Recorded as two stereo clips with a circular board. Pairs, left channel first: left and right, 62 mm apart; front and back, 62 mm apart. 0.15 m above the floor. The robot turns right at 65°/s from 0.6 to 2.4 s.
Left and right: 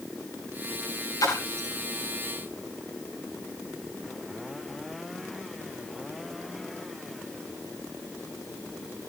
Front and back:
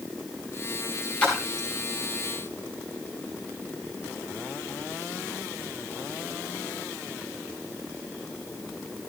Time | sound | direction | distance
1.2 | a splash | 70° left | 6 m